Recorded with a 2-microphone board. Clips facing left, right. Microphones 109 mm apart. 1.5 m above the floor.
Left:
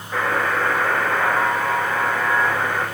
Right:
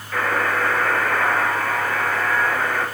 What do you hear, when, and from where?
0.1 s a buzzer: 20° left (ahead or behind), 6.5 m